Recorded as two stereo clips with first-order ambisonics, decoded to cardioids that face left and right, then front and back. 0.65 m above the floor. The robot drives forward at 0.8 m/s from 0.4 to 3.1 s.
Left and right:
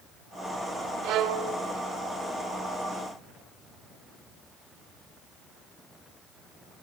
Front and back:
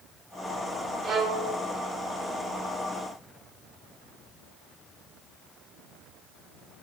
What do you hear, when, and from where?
1.0 s a violin: 115° right, 2.5 m; by 1.6 s 125° right, 2.5 m